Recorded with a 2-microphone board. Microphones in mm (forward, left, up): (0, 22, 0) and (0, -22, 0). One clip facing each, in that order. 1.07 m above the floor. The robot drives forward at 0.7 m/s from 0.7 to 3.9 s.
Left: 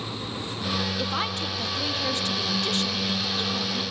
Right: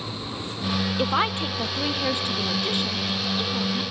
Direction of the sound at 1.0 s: 30° right (ahead or behind).